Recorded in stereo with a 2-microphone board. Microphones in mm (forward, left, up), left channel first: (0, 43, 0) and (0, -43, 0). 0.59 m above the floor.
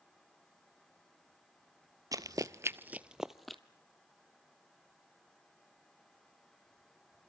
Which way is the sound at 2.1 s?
45° right (ahead or behind).